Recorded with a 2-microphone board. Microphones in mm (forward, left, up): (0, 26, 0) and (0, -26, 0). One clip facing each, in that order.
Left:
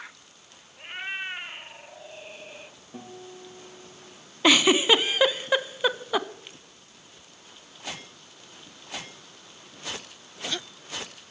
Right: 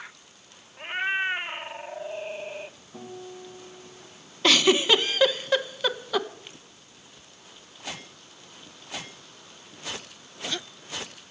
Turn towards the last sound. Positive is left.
turn(degrees=15)  # may be behind; listen again after turning